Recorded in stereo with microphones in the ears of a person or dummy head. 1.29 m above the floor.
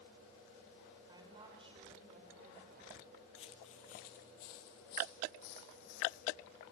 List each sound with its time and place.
1.1 s a woman speaking: 20° right (ahead or behind), 5 m; by 3.0 s 50° right (ahead or behind), 5 m
3.4 s footsteps: 35° left (ahead or behind), 1.7 m; by 6.3 s 50° left (ahead or behind), 3.5 m